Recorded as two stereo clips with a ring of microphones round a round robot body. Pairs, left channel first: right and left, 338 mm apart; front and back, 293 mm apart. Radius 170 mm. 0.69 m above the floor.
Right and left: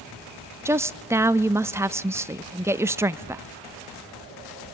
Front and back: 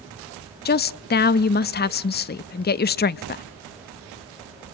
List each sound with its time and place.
0.7 s a woman speaking: 15° left, 0.5 m